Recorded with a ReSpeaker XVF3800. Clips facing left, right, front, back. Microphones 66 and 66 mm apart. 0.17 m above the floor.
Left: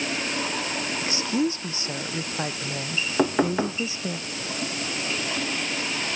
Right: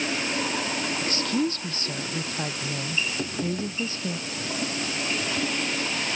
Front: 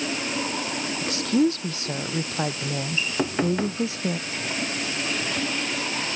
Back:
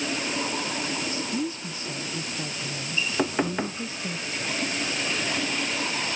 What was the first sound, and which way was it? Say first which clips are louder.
A woman speaking: left 2 dB, front 7 dB; 15° left.